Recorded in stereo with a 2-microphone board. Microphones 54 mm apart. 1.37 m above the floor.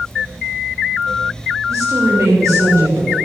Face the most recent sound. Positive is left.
turn(degrees=-90)